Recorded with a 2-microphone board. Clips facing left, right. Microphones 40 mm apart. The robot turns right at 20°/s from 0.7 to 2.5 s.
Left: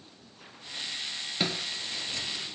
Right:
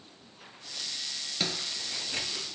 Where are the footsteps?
15° left (ahead or behind), 0.7 m; by 2.5 s 45° right (ahead or behind), 1.1 m.